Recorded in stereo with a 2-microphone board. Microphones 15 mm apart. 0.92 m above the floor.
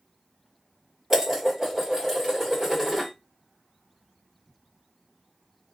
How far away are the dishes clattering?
About 1.6 m.